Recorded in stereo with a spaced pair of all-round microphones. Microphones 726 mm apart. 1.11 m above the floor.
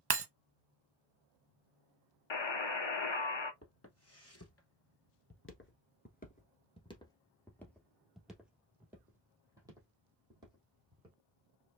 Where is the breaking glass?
35° right (ahead or behind), 0.5 m.